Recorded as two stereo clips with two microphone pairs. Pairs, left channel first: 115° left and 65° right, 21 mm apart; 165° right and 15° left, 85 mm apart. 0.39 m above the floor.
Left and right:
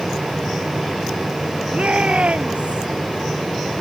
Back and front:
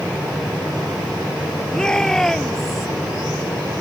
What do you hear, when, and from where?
1.7 s a shout: 85° right; by 2.9 s 80° right